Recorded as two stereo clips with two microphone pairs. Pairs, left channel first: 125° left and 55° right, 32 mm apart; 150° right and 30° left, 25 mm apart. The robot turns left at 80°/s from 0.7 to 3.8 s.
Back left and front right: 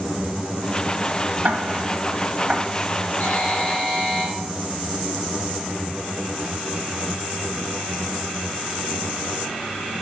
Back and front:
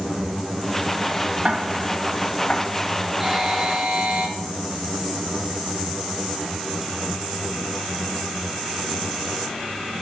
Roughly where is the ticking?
Ahead right.